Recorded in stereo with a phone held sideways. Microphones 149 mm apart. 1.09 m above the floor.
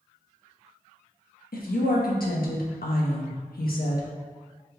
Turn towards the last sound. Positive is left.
turn(degrees=85)